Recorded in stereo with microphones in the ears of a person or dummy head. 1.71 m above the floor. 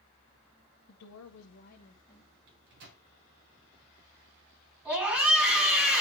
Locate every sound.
0.9 s a woman speaking: 60° left (ahead or behind), 0.8 m; by 2.3 s 15° left (ahead or behind), 1.3 m
2.5 s a microwave: 60° right (ahead or behind), 1.2 m
4.8 s a scream: 10° right (ahead or behind), 3 m